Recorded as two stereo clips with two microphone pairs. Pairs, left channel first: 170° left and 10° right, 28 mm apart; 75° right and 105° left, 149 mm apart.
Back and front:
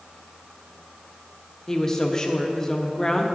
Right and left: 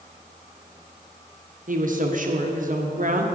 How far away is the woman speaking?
About 1.0 m.